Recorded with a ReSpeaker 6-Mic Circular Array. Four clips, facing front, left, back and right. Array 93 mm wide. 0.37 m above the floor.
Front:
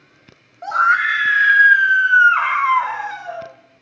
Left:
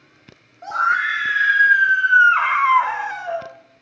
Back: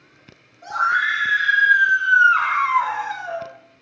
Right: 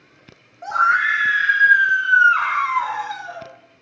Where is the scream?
10° right, 1.5 m; by 3.5 s 95° left, 1.2 m.